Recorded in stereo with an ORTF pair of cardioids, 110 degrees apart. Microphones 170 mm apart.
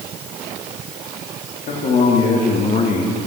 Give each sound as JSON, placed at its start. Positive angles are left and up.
{"t": 1.7, "sound": "a man speaking", "azimuth_deg": 55, "distance_m": 3.0}